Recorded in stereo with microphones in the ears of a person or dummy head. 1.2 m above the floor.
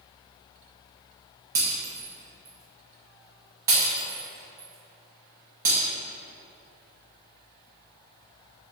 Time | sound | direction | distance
1.6 | breaking glass | 10° right (ahead or behind) | 0.7 m